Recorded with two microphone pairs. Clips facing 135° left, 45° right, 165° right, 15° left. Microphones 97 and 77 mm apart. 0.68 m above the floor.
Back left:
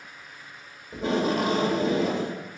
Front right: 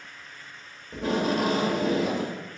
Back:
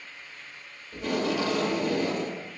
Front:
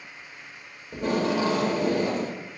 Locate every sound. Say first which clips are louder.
0.9 s tape being pulled: back left 1 dB, front 3 dB; 50° left, 1.2 m